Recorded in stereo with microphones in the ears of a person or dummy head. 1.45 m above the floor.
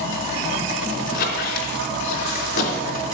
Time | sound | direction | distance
1.1 | a squeak | 65° left (ahead or behind) | 3.5 m